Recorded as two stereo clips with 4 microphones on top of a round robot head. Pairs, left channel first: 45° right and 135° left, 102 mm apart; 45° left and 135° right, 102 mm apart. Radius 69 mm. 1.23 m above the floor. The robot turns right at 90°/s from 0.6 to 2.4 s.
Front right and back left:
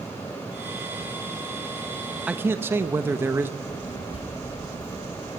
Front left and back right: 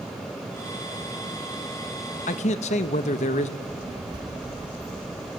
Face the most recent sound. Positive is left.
turn(degrees=-85)